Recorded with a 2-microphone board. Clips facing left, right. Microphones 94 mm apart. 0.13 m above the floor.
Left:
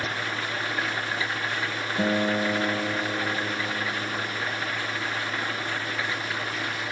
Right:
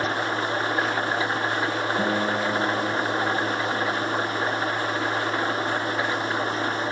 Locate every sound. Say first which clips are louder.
0.0 s an engine running: right 5 dB; 35° right (ahead or behind)
2.0 s a guitar: left 3 dB; 5° left (ahead or behind)